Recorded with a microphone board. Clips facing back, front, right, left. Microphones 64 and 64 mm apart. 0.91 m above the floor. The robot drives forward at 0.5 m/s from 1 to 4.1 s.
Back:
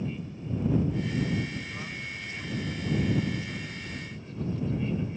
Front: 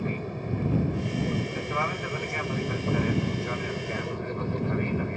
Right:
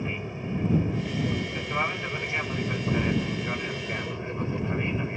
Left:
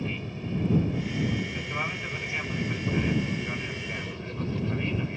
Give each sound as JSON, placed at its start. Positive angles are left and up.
{"t": 0.0, "sound": "an aircraft", "azimuth_deg": -25}